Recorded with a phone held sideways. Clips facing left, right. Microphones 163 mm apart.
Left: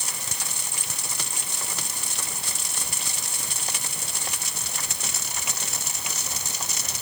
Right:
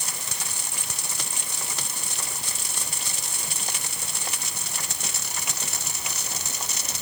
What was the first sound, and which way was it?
Only background noise.